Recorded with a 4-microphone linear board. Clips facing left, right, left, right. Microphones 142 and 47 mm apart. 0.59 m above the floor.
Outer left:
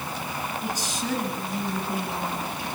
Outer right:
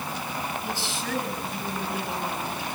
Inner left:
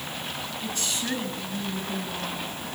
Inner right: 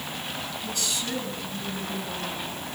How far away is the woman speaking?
About 9 m.